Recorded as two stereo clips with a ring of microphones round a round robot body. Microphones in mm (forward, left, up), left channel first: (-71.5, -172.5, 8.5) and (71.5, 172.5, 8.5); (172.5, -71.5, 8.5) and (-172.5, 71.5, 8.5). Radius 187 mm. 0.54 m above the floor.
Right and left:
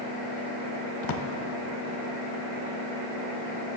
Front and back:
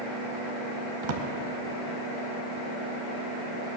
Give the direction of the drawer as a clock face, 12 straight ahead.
5 o'clock.